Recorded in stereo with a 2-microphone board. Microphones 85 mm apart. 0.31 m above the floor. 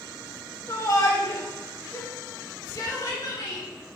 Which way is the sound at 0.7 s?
40° left (ahead or behind).